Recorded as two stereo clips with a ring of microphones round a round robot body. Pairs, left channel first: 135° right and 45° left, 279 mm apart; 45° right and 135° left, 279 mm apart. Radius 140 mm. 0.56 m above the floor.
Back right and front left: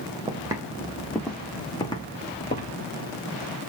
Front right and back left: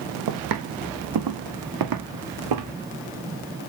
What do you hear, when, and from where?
0.3 s footsteps: 120° left, 1.8 m; by 2.7 s 160° left, 2.5 m